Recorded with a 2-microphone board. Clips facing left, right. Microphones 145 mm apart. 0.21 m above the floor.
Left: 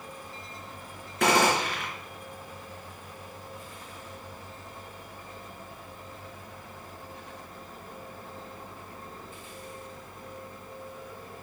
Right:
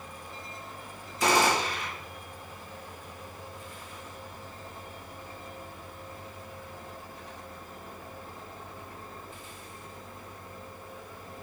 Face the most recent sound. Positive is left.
turn(degrees=60)  # may be behind; listen again after turning